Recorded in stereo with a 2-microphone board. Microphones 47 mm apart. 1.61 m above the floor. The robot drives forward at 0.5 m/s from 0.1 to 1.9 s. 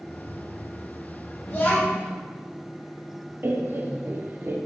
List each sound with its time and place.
1.5 s a child speaking: 40° left (ahead or behind), 1.3 m; by 2.1 s 45° left (ahead or behind), 1.2 m
3.4 s laughter: 45° right (ahead or behind), 0.5 m